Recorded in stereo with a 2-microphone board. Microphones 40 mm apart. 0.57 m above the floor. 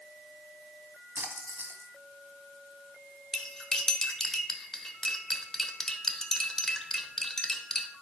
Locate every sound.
1.1 s a splash: 60° right (ahead or behind), 1.4 m
3.3 s cutlery clinking: 10° left (ahead or behind), 1.0 m